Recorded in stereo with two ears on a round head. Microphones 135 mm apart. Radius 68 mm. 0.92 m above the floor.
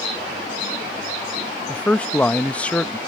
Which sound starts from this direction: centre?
A man speaking, at 1.7 s.